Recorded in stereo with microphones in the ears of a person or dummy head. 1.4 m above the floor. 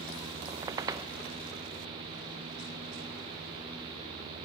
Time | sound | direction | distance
0.5 | a squeak | 20° right (ahead or behind) | 0.7 m